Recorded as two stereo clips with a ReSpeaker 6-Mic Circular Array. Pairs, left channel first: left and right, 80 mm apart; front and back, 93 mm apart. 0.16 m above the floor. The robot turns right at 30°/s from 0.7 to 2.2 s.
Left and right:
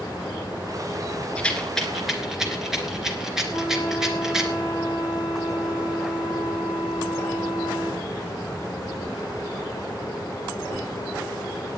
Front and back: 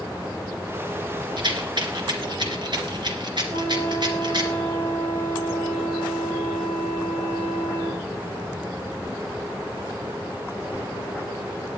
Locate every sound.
1.4 s a rattle: 165° left, 2.5 m; by 4.5 s 170° right, 2.5 m
3.5 s a flute: 155° right, 3 m